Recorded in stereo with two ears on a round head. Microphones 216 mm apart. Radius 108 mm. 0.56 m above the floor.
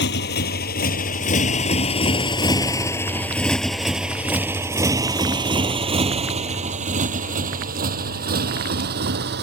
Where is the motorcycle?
45° left (ahead or behind); by 9.4 s 45° right (ahead or behind).